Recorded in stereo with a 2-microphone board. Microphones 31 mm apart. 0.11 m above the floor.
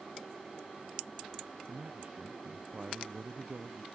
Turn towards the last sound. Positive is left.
turn(degrees=-35)  # may be behind; listen again after turning